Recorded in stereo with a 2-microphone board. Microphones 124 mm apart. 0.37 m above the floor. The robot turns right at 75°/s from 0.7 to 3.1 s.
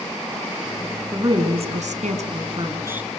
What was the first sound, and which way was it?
A woman speaking, 155° right.